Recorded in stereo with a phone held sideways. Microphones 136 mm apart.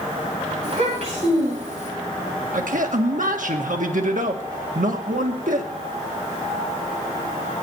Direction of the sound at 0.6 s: 55° right (ahead or behind).